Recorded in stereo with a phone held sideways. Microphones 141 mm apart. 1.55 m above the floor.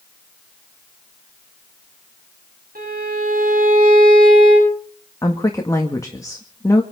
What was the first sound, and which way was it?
A violin, 75° right (ahead or behind).